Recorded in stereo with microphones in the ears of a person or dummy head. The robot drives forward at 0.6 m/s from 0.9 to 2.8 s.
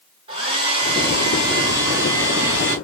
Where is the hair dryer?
30° right (ahead or behind), 1.7 m; by 2.8 s 20° right (ahead or behind), 3 m.